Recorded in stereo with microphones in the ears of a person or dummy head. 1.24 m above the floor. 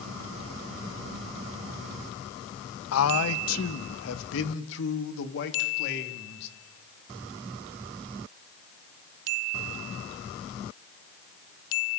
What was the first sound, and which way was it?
A man speaking, 75° left (ahead or behind).